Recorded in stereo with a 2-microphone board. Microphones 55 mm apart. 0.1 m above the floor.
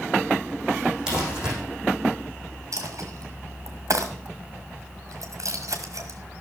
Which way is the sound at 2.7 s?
65° right (ahead or behind).